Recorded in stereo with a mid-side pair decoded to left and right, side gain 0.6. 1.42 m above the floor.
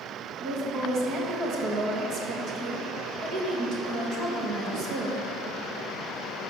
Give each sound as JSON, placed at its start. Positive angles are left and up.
{"t": 0.4, "sound": "a woman speaking", "azimuth_deg": -65, "distance_m": 1.6}